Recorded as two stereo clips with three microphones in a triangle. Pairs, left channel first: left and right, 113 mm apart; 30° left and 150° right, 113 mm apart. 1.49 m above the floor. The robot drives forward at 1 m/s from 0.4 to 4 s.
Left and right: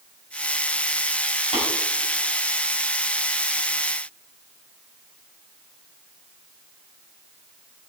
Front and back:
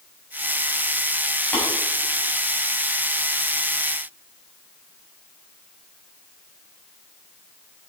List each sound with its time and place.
1.5 s tapping: 105° left, 7 m; by 1.6 s 110° left, 7 m